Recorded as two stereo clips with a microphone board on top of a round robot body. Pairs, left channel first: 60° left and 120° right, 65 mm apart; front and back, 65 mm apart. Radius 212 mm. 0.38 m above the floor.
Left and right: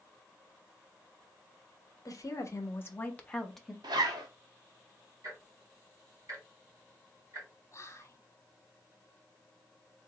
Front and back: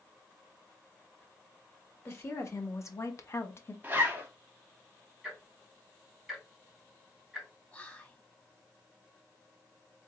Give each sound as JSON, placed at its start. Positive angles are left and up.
{"t": 2.0, "sound": "a woman speaking", "azimuth_deg": 40, "distance_m": 1.3}
{"t": 3.8, "sound": "a zipper", "azimuth_deg": -115, "distance_m": 0.7}
{"t": 5.2, "sound": "ticking", "azimuth_deg": -90, "distance_m": 3.0}
{"t": 7.7, "sound": "whispering", "azimuth_deg": 60, "distance_m": 1.5}